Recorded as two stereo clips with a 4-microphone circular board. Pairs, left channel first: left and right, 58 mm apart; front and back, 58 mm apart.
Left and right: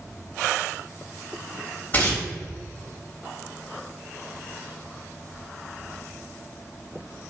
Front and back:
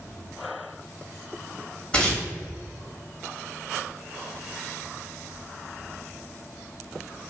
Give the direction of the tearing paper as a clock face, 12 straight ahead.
10 o'clock.